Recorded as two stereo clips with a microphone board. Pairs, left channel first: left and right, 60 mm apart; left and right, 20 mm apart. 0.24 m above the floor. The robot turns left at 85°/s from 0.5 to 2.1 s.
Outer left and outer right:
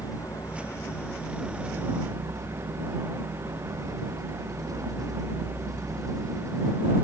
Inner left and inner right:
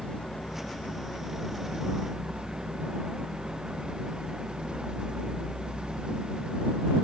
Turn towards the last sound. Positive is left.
turn(degrees=-70)